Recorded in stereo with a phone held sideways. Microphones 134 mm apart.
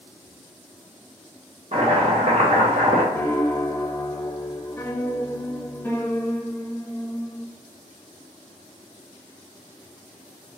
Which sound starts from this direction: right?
Chopping, at 1.7 s.